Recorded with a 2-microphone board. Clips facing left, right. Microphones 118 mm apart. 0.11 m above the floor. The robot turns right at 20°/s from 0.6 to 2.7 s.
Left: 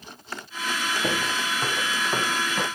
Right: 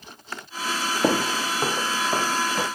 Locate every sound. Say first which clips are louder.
1.0 s footsteps: right 8 dB; 55° right (ahead or behind), 0.6 m; by 2.7 s centre (ahead or behind), 1.4 m